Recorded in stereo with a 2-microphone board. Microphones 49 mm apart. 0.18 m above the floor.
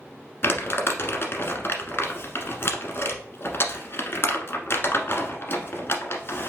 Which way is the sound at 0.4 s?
50° left (ahead or behind).